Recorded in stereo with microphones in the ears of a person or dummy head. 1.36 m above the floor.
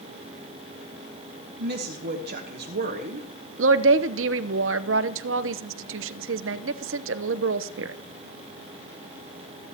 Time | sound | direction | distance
1.6 | a woman speaking | 50° right (ahead or behind) | 1.2 m
3.6 | a woman speaking | 65° right (ahead or behind) | 0.7 m